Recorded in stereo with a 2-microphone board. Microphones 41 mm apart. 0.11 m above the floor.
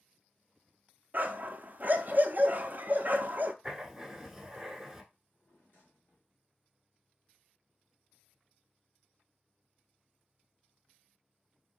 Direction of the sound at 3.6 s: 10° right (ahead or behind).